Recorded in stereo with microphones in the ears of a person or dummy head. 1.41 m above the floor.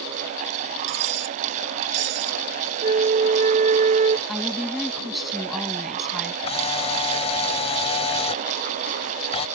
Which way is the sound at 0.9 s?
70° right (ahead or behind).